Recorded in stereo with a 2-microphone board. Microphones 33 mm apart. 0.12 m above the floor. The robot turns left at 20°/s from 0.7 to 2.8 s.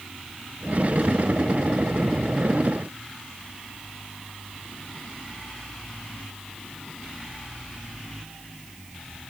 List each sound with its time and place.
Only background noise.